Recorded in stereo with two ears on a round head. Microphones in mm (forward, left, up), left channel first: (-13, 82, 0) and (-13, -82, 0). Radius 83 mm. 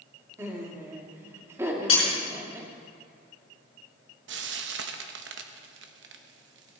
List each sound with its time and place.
0.4 s laughter: 15° right (ahead or behind), 2.5 m
1.9 s breaking glass: 30° left (ahead or behind), 5.5 m
4.3 s frying: 65° right (ahead or behind), 0.9 m